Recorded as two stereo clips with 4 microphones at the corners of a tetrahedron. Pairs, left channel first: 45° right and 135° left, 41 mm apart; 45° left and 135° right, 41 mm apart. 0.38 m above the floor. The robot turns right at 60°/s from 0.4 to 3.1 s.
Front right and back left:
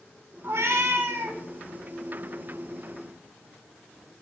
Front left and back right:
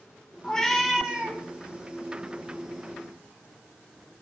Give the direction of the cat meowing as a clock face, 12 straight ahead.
8 o'clock.